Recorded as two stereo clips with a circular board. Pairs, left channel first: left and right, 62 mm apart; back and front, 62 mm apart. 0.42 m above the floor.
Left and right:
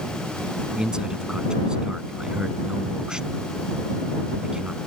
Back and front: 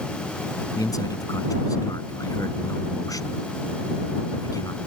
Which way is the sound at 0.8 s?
170° right.